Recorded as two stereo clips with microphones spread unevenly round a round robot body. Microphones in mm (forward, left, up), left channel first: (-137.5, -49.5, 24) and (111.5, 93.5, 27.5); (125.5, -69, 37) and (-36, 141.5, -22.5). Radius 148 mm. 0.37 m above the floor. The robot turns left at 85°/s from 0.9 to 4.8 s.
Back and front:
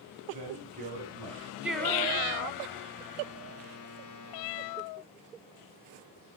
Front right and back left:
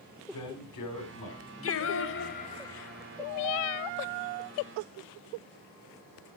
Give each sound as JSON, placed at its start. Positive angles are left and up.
{"t": 0.3, "sound": "a man speaking", "azimuth_deg": -35, "distance_m": 4.0}
{"t": 1.6, "sound": "singing", "azimuth_deg": -50, "distance_m": 1.1}